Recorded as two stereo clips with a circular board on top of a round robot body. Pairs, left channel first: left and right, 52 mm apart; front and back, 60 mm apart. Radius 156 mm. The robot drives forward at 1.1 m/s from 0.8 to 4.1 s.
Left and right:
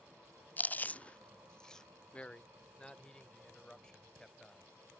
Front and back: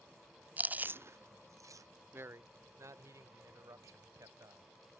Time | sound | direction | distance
0.6 | chewing | 130° left | ?
2.1 | a man speaking | 150° left | ?